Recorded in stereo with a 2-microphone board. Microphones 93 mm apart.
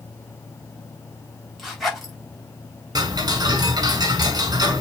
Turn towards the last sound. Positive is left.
turn(degrees=-45)  # may be behind; listen again after turning